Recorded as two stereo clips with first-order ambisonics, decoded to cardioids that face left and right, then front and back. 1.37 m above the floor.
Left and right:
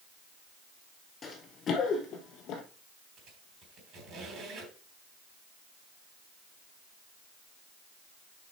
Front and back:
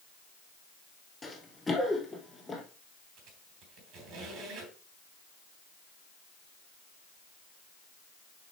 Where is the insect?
No insect in this recording.